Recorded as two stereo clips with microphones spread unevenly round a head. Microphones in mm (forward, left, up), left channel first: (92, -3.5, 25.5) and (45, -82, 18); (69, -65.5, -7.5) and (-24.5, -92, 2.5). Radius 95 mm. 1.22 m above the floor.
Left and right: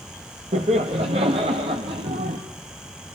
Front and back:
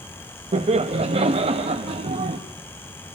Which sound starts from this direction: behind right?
Laughter, at 0.5 s.